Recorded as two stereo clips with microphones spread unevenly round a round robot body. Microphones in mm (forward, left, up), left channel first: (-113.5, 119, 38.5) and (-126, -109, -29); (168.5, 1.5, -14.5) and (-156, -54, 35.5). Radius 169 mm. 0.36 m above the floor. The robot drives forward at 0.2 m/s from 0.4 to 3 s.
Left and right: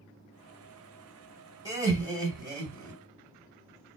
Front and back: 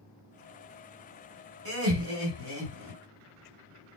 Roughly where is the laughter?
Behind right.